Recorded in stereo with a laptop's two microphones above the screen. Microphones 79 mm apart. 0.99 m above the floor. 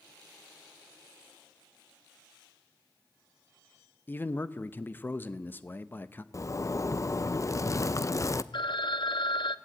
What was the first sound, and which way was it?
A man speaking, 25° left (ahead or behind).